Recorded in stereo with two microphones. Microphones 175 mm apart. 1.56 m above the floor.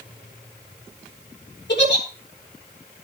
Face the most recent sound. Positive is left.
turn(degrees=85)